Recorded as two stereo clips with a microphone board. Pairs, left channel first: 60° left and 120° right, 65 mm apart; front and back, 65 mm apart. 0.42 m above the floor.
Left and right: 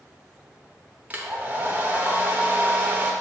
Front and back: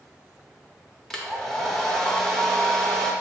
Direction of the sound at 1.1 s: 80° right.